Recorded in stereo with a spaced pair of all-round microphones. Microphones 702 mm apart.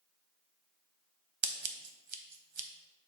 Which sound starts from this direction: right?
Scissors, at 1.4 s.